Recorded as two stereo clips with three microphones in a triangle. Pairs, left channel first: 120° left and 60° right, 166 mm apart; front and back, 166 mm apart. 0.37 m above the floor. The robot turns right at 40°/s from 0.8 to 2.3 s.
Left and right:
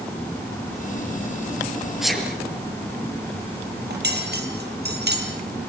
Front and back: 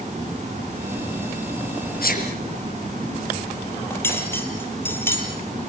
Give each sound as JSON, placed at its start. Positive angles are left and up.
{"t": 2.0, "sound": "a sneeze", "azimuth_deg": 25, "distance_m": 6.0}
{"t": 3.9, "sound": "cutlery clinking", "azimuth_deg": -75, "distance_m": 5.5}